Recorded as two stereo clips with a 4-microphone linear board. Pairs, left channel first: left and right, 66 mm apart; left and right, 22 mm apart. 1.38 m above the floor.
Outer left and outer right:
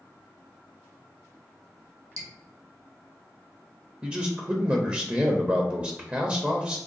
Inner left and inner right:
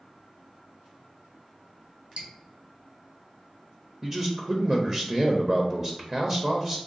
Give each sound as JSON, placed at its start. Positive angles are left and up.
{"t": 2.2, "sound": "dripping", "side_deg": -60, "distance_m": 0.9}
{"t": 4.0, "sound": "a man speaking", "side_deg": -20, "distance_m": 0.6}